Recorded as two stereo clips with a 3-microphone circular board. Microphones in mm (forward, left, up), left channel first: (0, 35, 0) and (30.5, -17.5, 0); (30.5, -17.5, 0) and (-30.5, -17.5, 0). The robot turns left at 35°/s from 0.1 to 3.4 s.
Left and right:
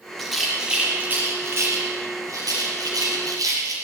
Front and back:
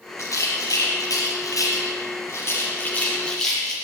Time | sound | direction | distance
0.2 | a rattle | 35° left | 4.5 m